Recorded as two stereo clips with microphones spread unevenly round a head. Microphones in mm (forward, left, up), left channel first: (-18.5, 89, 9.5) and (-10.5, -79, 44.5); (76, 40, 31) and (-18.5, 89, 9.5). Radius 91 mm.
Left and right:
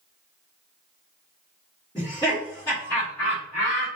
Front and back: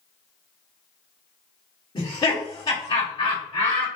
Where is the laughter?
20° left, 1.8 m.